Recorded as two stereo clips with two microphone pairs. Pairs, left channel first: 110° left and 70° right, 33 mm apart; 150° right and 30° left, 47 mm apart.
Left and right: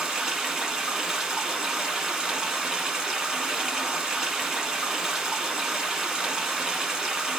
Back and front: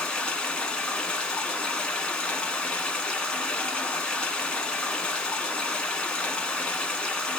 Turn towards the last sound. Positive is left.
turn(degrees=-115)